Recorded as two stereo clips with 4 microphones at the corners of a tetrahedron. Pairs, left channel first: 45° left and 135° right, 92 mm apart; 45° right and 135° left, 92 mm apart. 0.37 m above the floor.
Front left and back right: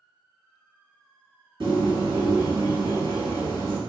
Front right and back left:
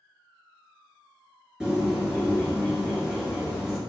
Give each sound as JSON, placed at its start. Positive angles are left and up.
{"t": 1.6, "sound": "a bird", "azimuth_deg": -145, "distance_m": 1.4}